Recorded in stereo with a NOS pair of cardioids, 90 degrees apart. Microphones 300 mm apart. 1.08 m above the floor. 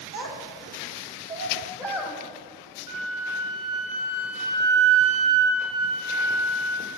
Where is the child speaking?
50° right, 1.6 m; by 2.2 s 10° right, 1.5 m.